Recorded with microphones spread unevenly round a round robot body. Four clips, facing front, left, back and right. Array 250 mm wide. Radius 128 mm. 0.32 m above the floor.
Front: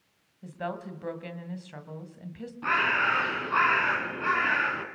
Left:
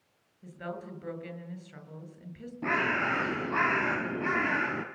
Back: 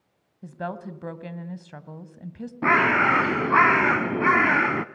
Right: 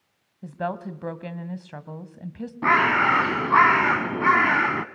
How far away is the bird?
About 0.7 m.